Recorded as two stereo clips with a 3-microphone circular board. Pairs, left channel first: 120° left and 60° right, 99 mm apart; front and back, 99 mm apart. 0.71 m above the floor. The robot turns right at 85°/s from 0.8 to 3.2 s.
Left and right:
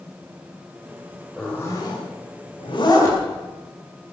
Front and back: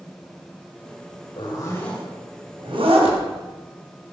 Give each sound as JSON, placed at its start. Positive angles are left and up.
{"t": 1.4, "sound": "a zipper", "azimuth_deg": 35, "distance_m": 4.0}